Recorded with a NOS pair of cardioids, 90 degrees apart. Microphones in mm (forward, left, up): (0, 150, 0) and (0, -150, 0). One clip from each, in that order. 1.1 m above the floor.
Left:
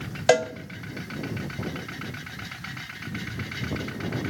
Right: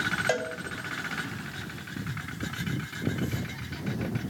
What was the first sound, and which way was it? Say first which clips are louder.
A cowbell: left 8 dB; 45° left.